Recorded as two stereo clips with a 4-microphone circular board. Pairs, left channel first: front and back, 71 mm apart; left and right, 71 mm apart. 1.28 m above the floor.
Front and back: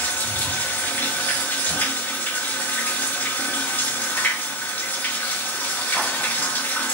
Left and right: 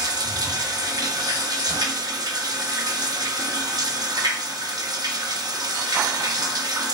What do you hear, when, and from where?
0.0 s running water: 65° right, 0.9 m